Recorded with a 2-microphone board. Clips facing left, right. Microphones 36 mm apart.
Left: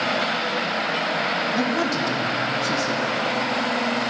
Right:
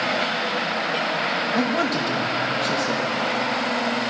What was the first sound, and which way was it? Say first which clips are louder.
A man speaking: even; 45° right (ahead or behind).